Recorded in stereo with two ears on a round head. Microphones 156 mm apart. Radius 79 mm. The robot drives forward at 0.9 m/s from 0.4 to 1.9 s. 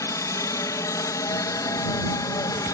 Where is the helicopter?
15° left (ahead or behind); by 2.7 s 20° left (ahead or behind).